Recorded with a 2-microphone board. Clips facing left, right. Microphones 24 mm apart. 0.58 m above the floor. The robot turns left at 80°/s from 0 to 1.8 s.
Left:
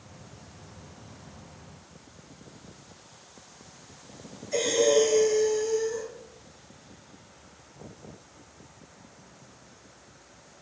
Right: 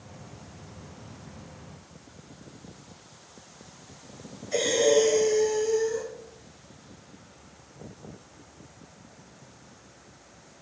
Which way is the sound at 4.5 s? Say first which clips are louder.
Right 1 dB; 45° right (ahead or behind).